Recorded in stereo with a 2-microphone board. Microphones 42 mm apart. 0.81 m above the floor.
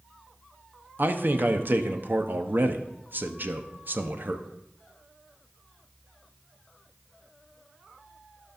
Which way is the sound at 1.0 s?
50° right (ahead or behind).